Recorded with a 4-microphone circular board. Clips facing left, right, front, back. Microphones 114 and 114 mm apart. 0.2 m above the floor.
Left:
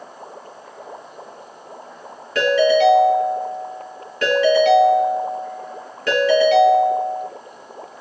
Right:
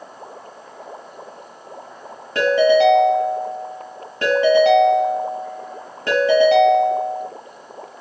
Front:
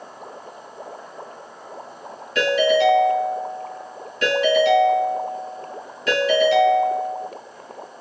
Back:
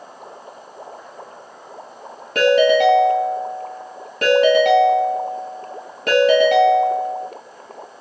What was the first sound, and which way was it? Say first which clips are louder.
A ringtone: right 1 dB, back 4 dB; 155° right.